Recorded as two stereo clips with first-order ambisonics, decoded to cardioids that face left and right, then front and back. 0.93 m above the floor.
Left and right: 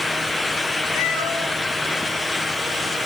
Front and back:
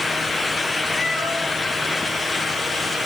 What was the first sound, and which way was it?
A cat meowing, 75° left.